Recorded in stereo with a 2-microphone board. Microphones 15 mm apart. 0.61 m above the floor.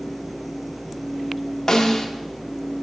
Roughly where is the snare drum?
Left.